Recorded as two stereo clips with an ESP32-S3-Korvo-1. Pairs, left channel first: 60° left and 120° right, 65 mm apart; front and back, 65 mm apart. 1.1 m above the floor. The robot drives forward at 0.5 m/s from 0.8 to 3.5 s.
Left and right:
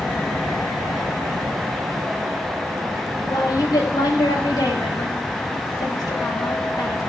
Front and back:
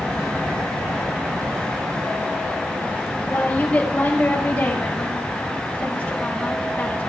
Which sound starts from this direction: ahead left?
A woman speaking, at 3.3 s.